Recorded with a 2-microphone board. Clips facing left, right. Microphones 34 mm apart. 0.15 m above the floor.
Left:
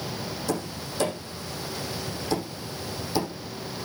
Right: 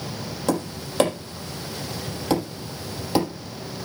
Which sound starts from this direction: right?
Tapping, at 0.5 s.